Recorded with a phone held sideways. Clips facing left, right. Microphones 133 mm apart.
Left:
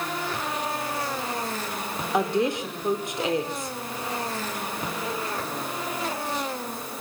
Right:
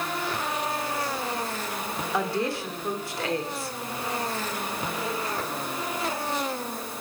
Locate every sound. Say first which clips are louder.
2.1 s a woman speaking: left 4 dB; 20° left (ahead or behind), 3 m